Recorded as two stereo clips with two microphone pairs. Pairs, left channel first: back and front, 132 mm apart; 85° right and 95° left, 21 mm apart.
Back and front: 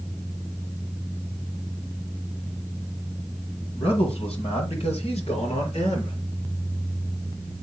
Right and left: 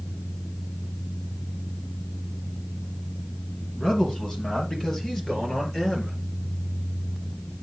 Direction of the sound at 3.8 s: 140° right.